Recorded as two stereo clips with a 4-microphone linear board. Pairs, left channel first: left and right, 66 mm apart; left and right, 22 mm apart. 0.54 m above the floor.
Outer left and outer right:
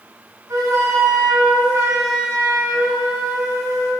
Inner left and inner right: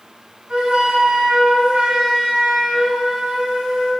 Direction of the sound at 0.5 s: 60° right (ahead or behind).